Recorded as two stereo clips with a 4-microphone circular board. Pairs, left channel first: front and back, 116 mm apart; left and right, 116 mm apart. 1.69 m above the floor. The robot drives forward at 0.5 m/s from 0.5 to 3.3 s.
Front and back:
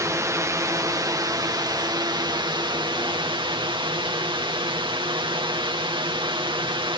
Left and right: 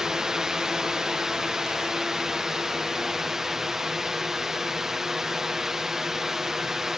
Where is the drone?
170° right; by 7.0 s 175° right.